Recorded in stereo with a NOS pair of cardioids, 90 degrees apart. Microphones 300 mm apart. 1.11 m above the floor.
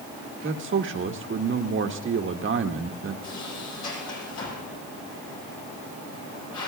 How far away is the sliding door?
About 8 m.